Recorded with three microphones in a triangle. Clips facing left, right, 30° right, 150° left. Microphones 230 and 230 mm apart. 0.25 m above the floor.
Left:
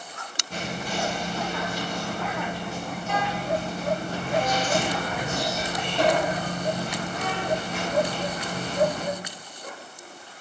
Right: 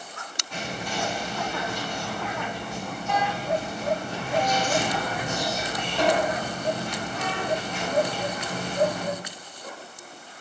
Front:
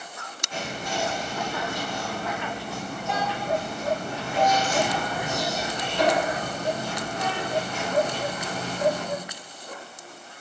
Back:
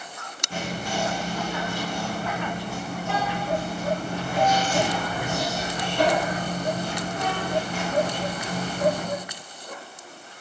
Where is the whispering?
130° left, 3 m.